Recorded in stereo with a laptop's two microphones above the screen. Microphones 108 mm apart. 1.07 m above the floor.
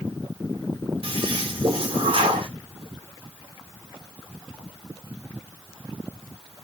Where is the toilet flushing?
55° right (ahead or behind), 1.5 m.